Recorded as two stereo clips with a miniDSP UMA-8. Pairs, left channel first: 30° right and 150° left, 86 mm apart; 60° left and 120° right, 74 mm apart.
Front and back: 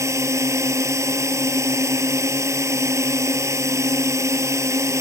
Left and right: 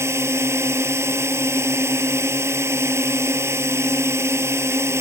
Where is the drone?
165° right.